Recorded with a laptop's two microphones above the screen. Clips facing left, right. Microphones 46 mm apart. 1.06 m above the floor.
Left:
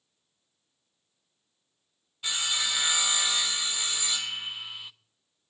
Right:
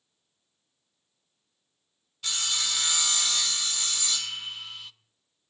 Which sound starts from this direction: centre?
Sawing, at 2.2 s.